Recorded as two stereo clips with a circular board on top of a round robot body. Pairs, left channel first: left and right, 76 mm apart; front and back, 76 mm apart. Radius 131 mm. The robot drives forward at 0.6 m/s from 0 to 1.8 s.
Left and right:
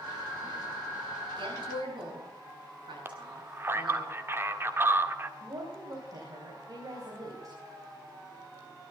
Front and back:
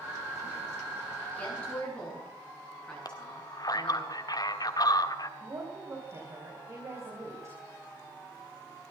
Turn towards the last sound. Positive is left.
turn(degrees=-130)